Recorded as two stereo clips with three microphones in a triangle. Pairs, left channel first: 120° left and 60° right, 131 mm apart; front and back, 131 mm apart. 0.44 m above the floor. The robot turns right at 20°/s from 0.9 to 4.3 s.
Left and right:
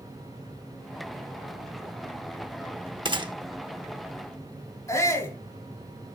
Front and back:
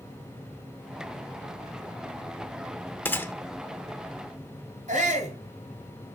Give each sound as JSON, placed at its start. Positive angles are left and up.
{"t": 3.0, "sound": "a gunshot", "azimuth_deg": -65, "distance_m": 0.6}
{"t": 4.9, "sound": "a shout", "azimuth_deg": -175, "distance_m": 2.5}